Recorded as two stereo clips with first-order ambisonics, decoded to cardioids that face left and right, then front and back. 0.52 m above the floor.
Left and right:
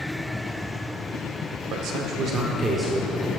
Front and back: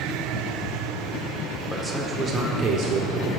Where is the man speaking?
90° right, 1.3 m; by 3.3 s 175° right, 1.6 m.